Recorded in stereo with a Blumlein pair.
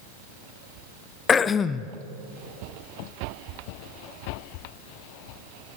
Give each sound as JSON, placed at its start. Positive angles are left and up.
{"t": 1.3, "sound": "throat clearing", "azimuth_deg": 20, "distance_m": 0.7}